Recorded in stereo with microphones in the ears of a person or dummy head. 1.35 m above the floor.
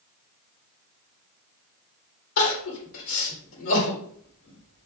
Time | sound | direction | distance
2.4 | crying | 80° left | 3.5 m